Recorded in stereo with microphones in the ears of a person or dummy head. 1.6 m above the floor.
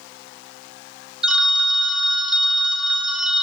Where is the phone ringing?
5° right (ahead or behind), 1.1 m.